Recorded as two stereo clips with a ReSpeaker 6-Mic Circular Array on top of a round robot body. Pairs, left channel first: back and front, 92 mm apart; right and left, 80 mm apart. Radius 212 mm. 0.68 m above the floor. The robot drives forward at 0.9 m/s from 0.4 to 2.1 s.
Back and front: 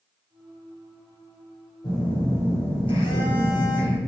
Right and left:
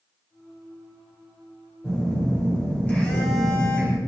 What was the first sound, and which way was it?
A phone buzzing, 155° right.